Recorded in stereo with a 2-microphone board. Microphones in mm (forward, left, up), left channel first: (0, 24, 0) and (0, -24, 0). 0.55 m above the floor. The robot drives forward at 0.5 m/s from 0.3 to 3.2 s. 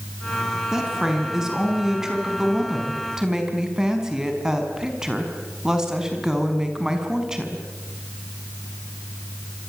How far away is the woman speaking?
About 6 m.